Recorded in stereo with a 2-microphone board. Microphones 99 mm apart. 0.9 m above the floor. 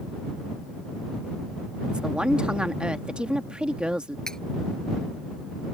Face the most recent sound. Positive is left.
turn(degrees=5)  # may be behind; listen again after turning